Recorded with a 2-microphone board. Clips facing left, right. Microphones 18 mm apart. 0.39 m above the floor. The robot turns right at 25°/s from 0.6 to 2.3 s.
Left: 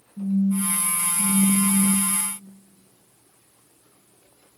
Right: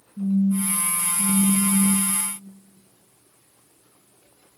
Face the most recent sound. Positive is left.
turn(degrees=50)